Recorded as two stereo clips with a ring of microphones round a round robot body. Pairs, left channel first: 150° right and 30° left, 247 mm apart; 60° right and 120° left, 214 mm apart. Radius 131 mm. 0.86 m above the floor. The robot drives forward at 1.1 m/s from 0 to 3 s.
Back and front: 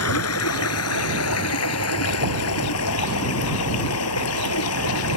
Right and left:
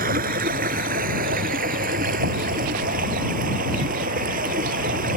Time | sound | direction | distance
0.0 | running water | straight behind | ?